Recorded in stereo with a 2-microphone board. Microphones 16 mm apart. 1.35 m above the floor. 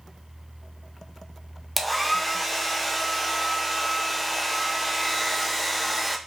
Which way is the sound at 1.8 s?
5° right (ahead or behind).